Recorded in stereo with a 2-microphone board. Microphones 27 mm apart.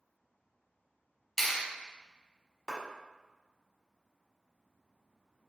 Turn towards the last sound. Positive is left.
turn(degrees=-15)  # may be behind; listen again after turning